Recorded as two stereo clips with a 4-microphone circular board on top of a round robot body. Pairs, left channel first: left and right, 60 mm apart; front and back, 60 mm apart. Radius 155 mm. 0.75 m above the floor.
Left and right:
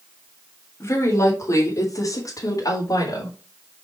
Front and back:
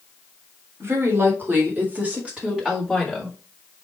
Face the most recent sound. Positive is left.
turn(degrees=85)